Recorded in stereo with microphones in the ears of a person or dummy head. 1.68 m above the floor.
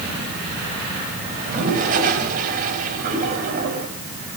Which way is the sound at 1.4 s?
50° right (ahead or behind).